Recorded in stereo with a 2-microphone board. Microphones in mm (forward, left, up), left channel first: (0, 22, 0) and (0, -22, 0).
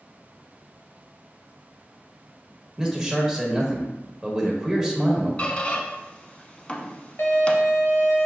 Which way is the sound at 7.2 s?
60° left (ahead or behind).